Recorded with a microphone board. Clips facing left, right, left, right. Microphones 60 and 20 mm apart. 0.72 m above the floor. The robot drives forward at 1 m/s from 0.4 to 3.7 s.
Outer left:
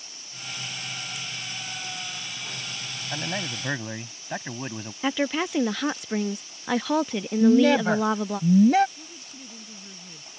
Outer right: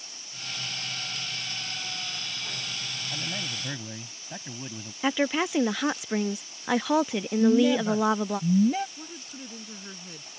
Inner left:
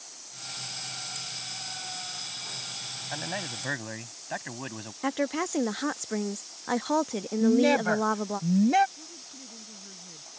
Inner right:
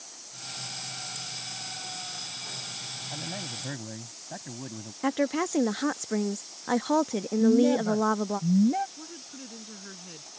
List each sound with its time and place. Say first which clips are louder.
3.1 s a man speaking: outer left 6 dB, inner left 4 dB; 60° left (ahead or behind)
5.0 s a woman speaking: even, inner right 2 dB; 5° right (ahead or behind)
7.4 s a woman speaking: outer left 3 dB, even; 80° left
9.0 s a woman speaking: outer right 3 dB, inner right 2 dB; 65° right (ahead or behind)